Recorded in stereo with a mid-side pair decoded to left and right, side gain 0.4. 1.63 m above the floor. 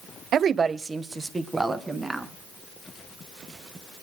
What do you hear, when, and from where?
0.3 s a woman speaking: 65° right, 0.7 m; by 2.3 s 10° right, 2.5 m